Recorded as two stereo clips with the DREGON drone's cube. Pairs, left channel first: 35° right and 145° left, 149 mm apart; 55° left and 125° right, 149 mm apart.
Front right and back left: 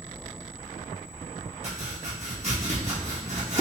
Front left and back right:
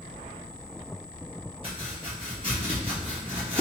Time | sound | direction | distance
1.6 | chopping | 175° right | 1.6 m